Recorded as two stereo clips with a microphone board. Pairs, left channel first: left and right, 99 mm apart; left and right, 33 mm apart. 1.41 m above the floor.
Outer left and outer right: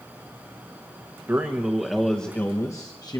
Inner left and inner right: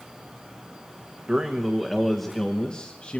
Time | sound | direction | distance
1.3 | a man speaking | 25° right (ahead or behind) | 1.1 m